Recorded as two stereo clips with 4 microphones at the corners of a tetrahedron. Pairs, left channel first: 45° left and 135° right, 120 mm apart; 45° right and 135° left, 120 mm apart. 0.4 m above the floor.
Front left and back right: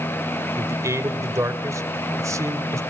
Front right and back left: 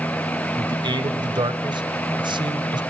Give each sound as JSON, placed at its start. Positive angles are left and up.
{"t": 0.6, "sound": "a man speaking", "azimuth_deg": 170, "distance_m": 1.3}